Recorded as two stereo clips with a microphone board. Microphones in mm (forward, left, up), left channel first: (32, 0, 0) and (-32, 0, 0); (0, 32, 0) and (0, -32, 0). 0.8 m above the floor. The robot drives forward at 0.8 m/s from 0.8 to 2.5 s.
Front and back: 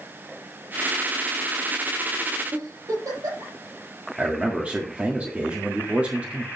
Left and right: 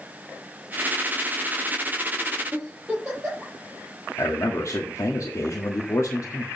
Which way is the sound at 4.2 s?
115° left.